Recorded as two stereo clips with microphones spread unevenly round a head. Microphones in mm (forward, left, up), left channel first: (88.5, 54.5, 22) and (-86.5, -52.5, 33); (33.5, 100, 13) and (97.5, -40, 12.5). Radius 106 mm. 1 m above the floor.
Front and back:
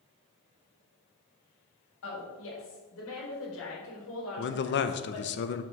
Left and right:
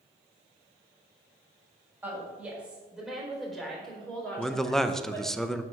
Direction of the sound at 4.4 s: 30° left.